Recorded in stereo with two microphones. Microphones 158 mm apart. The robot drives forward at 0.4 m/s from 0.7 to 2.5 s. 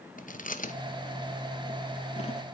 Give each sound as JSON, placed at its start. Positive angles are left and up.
{"t": 0.2, "sound": "chewing", "side_deg": 55, "distance_m": 0.9}